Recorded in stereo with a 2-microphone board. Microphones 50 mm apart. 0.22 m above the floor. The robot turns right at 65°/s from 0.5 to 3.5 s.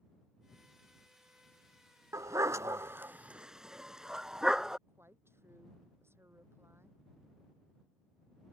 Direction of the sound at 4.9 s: 50° right (ahead or behind).